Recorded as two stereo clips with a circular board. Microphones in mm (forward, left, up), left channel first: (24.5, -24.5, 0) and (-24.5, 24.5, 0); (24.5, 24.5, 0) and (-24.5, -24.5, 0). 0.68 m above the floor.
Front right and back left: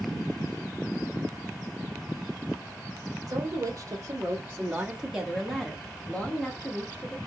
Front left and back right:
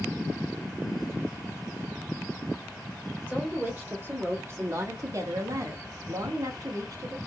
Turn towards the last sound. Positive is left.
turn(degrees=-100)